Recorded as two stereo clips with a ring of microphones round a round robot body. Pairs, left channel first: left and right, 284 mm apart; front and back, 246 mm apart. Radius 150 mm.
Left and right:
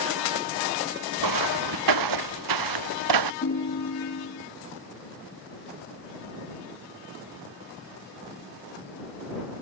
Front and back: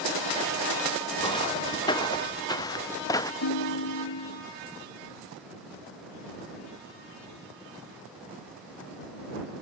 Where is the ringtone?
30° left.